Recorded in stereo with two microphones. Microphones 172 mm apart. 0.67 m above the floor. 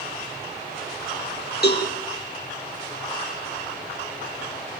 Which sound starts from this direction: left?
A cowbell, at 1.6 s.